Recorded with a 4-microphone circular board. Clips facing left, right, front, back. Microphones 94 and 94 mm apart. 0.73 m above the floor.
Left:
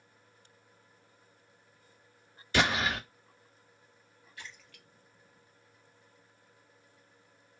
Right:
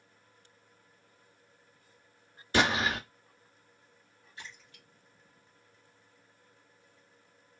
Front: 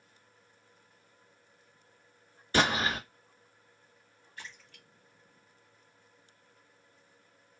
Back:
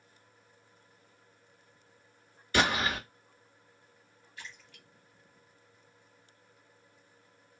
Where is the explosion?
45° right, 1.7 m.